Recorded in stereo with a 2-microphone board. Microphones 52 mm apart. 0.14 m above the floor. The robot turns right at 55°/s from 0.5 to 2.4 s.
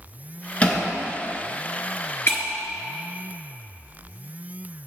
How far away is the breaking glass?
About 1.3 m.